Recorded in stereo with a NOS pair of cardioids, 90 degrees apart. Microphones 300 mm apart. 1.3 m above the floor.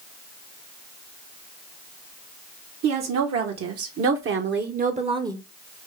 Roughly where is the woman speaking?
Right.